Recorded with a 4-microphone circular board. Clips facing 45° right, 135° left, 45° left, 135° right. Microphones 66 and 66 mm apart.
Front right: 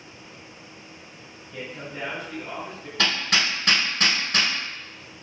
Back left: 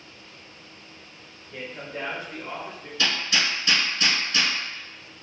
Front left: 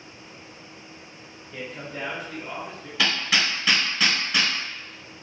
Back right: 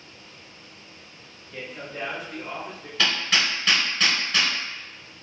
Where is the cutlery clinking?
I don't hear cutlery clinking.